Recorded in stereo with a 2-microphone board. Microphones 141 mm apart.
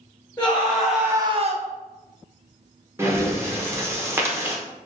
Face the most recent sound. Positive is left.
turn(degrees=-15)  # may be behind; listen again after turning